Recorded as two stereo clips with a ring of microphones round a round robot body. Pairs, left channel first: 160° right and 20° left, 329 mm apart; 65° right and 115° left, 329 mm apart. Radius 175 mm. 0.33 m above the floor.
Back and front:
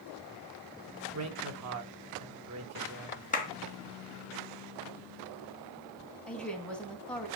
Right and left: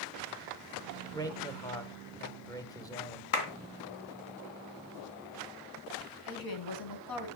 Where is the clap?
90° right, 3 m.